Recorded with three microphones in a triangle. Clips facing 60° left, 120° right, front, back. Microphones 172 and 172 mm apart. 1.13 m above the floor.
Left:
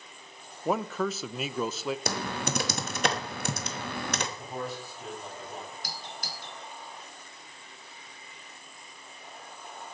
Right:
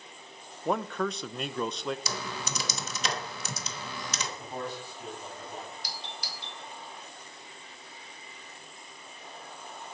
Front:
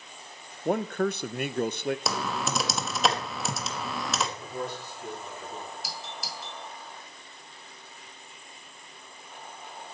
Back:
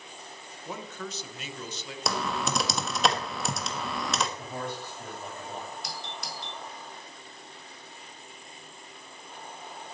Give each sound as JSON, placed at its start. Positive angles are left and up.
{"t": 0.7, "sound": "a man speaking", "azimuth_deg": -25, "distance_m": 0.5}
{"t": 2.1, "sound": "typing on a keyboard", "azimuth_deg": 90, "distance_m": 1.2}
{"t": 4.4, "sound": "a man speaking", "azimuth_deg": 150, "distance_m": 8.5}
{"t": 5.8, "sound": "a doorbell", "azimuth_deg": 85, "distance_m": 1.3}